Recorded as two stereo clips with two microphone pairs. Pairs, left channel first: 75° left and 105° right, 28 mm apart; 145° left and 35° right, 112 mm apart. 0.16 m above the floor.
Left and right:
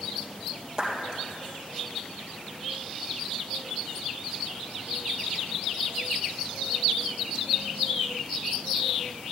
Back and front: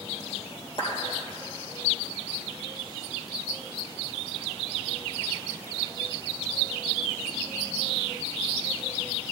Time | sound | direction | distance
0.8 | a clap | 175° right | 3 m